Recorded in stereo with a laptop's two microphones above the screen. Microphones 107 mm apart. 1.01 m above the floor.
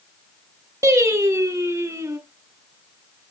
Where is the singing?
30° right (ahead or behind), 3 m.